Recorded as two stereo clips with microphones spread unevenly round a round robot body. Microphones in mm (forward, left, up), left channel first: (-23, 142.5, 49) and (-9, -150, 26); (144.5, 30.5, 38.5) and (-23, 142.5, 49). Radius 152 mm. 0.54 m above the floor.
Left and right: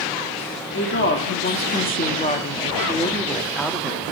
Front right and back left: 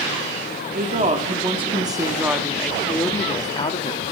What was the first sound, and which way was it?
A woman speaking, 125° left.